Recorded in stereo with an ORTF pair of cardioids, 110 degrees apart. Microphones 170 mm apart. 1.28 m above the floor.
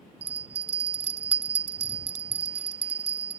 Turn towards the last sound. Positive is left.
turn(degrees=-35)